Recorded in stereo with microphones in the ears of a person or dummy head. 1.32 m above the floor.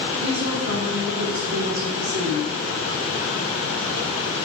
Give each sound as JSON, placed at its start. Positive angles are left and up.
{"t": 0.2, "sound": "a woman speaking", "side_deg": -60, "distance_m": 4.0}